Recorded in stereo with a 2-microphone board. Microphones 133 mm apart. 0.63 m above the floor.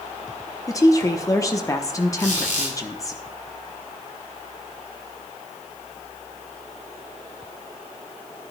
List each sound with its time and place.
0.7 s a woman speaking: 25° left (ahead or behind), 0.8 m
2.2 s a squeak: 70° left (ahead or behind), 6.5 m